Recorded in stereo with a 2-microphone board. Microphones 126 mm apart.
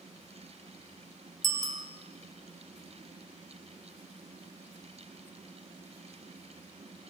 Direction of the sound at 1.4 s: 85° right.